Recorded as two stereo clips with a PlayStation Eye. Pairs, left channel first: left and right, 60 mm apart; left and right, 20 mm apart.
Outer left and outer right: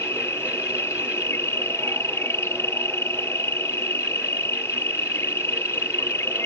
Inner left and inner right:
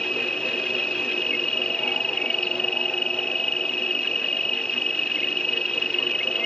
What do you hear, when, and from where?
0.0 s an insect: 50° left (ahead or behind)